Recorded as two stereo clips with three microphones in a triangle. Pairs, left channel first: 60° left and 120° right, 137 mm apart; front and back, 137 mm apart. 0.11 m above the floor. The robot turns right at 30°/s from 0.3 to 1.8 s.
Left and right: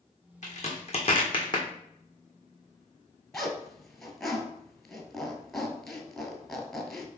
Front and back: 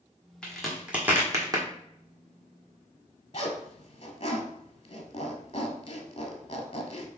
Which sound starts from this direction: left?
A crack, at 0.4 s.